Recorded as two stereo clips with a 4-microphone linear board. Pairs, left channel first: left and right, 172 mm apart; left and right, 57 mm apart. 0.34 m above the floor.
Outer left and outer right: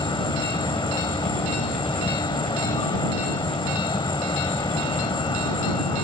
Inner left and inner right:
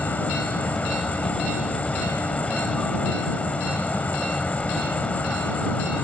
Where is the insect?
30° left (ahead or behind).